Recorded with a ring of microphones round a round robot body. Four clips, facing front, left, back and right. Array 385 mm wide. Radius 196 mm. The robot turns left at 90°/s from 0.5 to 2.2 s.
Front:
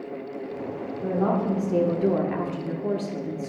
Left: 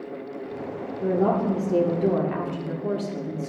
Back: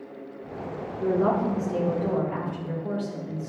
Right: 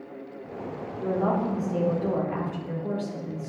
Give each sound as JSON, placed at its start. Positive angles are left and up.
{"t": 1.0, "sound": "a woman speaking", "azimuth_deg": 140, "distance_m": 1.6}